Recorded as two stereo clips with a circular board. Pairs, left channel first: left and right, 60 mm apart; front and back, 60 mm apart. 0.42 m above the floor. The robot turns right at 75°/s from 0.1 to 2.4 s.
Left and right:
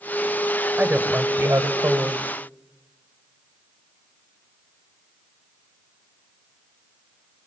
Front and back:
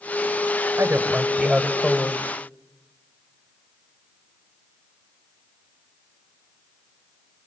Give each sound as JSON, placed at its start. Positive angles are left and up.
{"t": 0.8, "sound": "a woman speaking", "azimuth_deg": -160, "distance_m": 1.9}